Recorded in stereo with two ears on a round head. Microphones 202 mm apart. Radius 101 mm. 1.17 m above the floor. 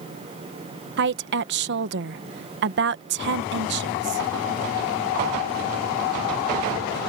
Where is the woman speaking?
50° right (ahead or behind).